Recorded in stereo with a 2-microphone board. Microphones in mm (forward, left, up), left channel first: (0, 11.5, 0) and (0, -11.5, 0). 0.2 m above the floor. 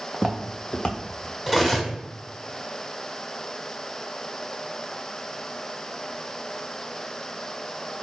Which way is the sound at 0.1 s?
30° right (ahead or behind).